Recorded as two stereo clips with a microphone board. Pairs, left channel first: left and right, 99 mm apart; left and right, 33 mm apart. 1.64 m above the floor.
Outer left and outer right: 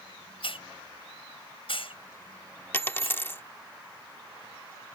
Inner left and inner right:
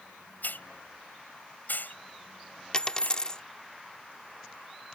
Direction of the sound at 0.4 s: 65° left (ahead or behind).